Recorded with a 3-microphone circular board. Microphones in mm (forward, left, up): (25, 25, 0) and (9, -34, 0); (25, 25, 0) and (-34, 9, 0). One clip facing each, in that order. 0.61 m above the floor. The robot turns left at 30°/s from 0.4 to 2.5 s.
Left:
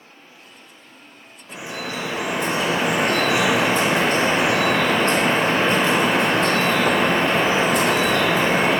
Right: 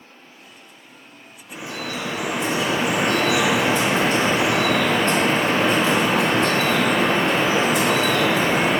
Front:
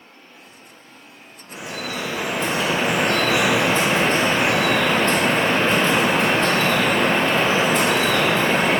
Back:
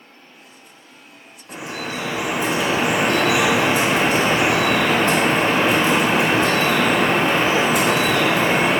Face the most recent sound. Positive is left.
turn(degrees=115)